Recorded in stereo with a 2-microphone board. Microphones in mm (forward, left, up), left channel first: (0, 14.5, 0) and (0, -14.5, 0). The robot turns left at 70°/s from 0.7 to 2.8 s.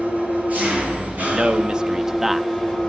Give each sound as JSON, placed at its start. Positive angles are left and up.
{"t": 0.0, "sound": "an engine running", "azimuth_deg": -60, "distance_m": 9.5}
{"t": 1.3, "sound": "a man speaking", "azimuth_deg": -100, "distance_m": 0.5}